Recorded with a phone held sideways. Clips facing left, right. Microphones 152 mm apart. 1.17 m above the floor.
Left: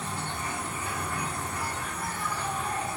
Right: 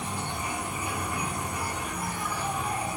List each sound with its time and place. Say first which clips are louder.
0.0 s an insect: right 1 dB; 15° right (ahead or behind), 0.7 m